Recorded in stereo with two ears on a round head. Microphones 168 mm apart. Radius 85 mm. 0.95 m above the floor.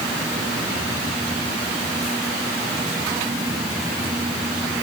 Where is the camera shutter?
I don't hear a camera shutter.